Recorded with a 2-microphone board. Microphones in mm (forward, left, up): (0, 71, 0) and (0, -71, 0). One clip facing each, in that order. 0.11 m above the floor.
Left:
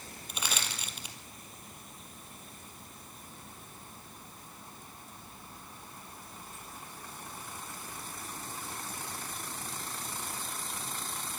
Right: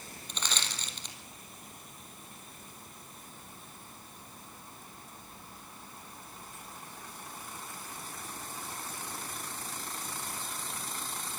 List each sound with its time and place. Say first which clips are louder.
0.3 s crushing: left 1 dB; 10° left (ahead or behind), 2 m